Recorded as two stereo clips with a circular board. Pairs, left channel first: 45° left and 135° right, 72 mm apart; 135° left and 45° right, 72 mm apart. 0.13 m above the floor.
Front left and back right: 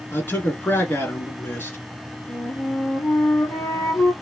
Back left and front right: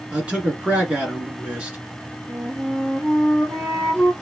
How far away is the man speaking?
About 2.0 m.